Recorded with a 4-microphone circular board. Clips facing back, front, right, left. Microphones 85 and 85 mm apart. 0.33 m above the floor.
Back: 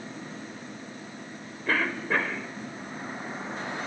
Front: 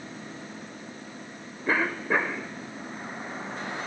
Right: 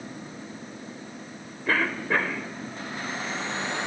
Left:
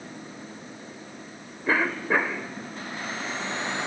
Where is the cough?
45° left, 1.2 m.